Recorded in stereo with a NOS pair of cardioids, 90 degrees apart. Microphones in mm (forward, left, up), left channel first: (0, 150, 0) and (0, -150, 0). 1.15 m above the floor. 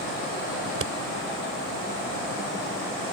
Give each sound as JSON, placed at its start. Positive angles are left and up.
{"t": 0.7, "sound": "scissors", "azimuth_deg": -45}